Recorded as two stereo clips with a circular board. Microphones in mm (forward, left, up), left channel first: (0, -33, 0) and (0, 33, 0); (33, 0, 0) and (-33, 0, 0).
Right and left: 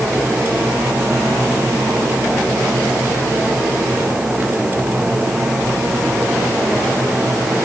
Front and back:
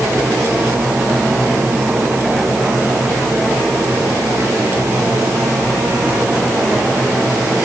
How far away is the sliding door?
I don't hear a sliding door.